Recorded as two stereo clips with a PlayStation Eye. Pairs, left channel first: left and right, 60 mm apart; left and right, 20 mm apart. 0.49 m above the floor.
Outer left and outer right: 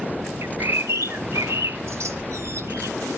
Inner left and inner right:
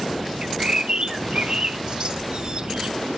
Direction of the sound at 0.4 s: 50° right (ahead or behind).